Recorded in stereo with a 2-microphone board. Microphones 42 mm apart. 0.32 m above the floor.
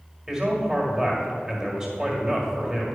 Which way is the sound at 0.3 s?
15° right (ahead or behind).